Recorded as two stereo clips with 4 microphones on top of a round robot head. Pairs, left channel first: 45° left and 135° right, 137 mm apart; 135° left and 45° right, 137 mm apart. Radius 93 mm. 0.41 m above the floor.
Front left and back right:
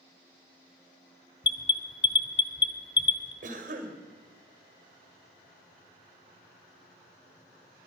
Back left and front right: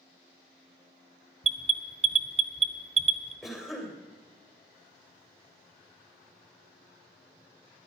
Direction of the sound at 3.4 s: 135° right.